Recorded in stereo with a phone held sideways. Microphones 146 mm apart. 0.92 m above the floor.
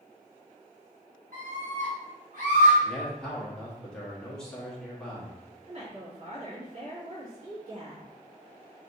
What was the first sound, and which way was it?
A scream, 65° right (ahead or behind).